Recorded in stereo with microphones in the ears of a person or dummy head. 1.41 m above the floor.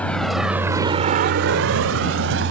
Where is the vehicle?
10° left (ahead or behind); by 2.5 s 70° right (ahead or behind).